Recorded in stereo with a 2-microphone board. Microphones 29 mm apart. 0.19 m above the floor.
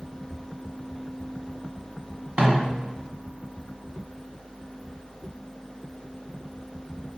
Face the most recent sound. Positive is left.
turn(degrees=-40)  # may be behind; listen again after turning